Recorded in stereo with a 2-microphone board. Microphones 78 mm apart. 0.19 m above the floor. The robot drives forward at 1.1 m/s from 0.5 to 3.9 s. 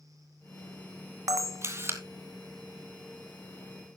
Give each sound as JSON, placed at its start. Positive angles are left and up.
{"t": 1.3, "sound": "a camera shutter", "side_deg": -50, "distance_m": 1.1}